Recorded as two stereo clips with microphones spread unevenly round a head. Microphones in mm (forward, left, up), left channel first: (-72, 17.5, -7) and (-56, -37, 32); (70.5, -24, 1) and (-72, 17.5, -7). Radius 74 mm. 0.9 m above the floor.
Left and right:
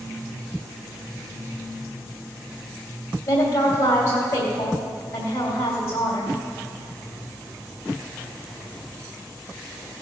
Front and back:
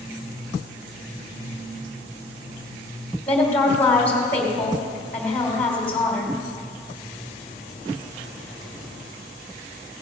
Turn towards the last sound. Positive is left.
turn(degrees=65)